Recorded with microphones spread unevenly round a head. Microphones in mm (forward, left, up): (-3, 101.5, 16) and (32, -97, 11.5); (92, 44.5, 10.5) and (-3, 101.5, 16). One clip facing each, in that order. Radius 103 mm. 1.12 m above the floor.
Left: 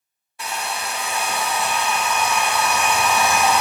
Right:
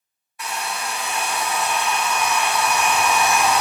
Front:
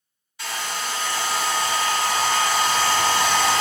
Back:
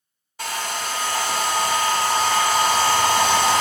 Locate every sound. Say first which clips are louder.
0.4 s a hair dryer: even, back 2 dB; 145° left, 0.9 m